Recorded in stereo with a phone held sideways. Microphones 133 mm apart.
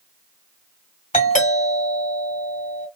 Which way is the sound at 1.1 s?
65° left (ahead or behind).